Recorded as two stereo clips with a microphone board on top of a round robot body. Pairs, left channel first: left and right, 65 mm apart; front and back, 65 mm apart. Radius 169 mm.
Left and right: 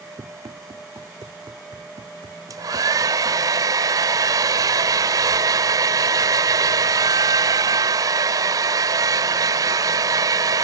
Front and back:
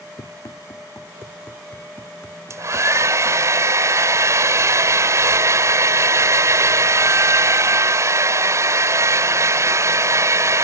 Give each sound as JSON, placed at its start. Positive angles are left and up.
{"t": 0.2, "sound": "running footsteps", "azimuth_deg": -40}
{"t": 2.5, "sound": "a hair dryer", "azimuth_deg": -135}